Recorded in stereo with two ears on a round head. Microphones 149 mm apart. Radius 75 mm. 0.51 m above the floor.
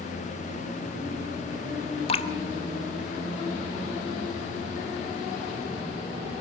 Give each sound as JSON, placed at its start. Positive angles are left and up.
{"t": 2.1, "sound": "dripping", "side_deg": 35, "distance_m": 1.5}